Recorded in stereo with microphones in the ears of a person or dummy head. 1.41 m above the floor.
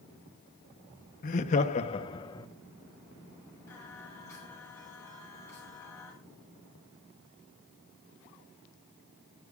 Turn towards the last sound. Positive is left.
turn(degrees=15)  # may be behind; listen again after turning